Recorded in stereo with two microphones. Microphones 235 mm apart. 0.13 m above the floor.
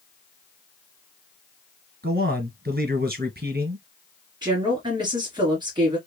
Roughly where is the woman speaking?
Centre.